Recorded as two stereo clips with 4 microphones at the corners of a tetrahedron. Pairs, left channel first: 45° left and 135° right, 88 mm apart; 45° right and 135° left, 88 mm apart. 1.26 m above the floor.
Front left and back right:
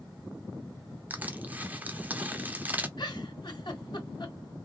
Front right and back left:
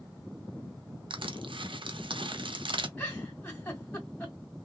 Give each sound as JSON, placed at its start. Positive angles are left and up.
{"t": 1.1, "sound": "crushing", "azimuth_deg": 155, "distance_m": 0.6}
{"t": 3.0, "sound": "a giggle", "azimuth_deg": 20, "distance_m": 1.8}